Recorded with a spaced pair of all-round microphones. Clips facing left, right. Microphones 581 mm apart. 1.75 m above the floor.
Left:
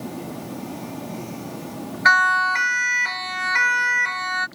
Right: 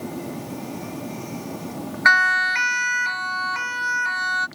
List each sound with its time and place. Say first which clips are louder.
2.0 s a siren: left 2 dB; 55° left (ahead or behind); by 4.5 s 70° left (ahead or behind)